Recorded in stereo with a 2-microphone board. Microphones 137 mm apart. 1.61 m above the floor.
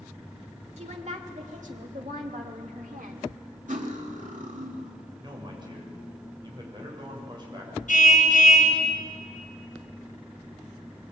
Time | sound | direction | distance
0.8 | a woman speaking | 55° right (ahead or behind) | 3 m
3.7 | cutlery clinking | 70° right (ahead or behind) | 2.5 m
5.2 | a man speaking | 35° right (ahead or behind) | 7 m
7.9 | a car horn | 70° left (ahead or behind) | 6.5 m